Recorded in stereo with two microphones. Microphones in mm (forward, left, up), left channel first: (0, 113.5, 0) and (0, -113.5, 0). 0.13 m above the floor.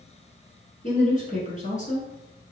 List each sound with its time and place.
0.8 s a woman speaking: 35° left (ahead or behind), 1.4 m